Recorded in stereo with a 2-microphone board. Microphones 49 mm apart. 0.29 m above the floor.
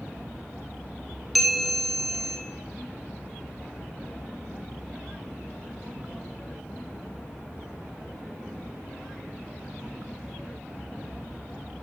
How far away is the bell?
About 1.5 m.